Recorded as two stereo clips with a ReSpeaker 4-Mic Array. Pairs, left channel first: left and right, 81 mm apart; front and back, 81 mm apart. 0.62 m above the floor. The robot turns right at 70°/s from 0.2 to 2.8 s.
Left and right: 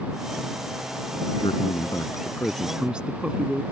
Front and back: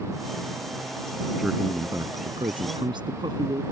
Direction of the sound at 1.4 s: 90° left.